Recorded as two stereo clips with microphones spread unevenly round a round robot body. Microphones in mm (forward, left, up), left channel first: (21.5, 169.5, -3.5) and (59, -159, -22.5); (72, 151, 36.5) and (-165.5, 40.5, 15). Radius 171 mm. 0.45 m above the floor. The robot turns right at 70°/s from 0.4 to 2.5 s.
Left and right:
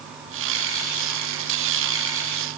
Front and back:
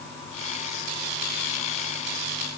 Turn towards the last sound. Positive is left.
No sound to turn to.